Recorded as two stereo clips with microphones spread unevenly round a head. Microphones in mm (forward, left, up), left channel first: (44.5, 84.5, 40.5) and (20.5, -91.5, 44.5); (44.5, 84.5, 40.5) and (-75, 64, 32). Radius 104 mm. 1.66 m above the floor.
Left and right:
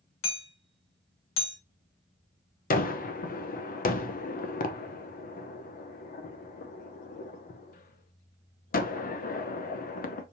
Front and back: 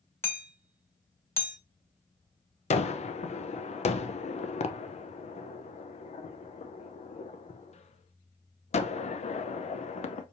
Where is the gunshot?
40° left, 0.6 m.